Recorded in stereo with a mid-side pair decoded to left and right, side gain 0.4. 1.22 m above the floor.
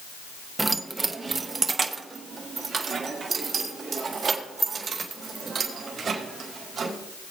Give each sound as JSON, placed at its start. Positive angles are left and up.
{"t": 0.6, "sound": "keys jangling", "azimuth_deg": -20, "distance_m": 0.8}